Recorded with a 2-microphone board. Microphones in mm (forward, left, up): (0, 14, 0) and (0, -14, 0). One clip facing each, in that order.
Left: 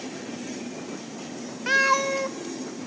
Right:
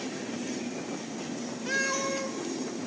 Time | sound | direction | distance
1.7 | a cat meowing | 40° left (ahead or behind) | 0.5 m